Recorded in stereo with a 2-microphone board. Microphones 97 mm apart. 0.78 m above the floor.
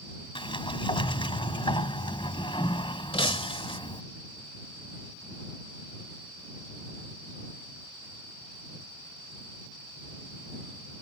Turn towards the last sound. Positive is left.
turn(degrees=70)  # may be behind; listen again after turning